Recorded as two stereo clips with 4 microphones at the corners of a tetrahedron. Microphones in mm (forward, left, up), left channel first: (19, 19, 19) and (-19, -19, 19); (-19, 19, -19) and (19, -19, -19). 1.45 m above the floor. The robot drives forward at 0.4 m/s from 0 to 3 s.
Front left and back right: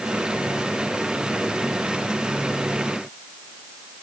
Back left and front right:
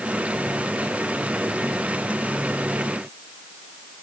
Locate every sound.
Only background noise.